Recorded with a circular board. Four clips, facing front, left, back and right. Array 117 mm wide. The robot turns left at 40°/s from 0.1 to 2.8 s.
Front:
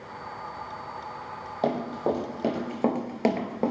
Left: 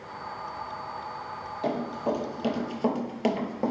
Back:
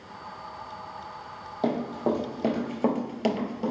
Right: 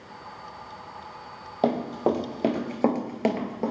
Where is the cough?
I don't hear a cough.